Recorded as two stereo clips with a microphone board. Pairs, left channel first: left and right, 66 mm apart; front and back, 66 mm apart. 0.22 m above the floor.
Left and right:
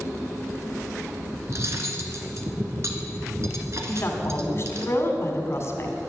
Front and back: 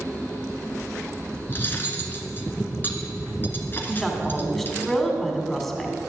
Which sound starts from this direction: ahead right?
Cutlery clinking, at 1.5 s.